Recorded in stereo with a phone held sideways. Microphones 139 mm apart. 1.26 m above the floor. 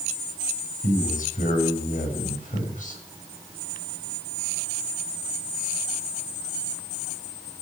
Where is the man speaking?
80° left, 6.5 m.